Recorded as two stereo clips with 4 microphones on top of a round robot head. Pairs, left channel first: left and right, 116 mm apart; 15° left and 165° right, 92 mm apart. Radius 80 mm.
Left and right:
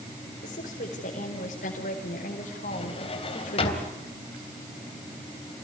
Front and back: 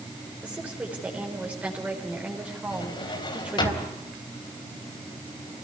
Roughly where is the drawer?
Ahead left.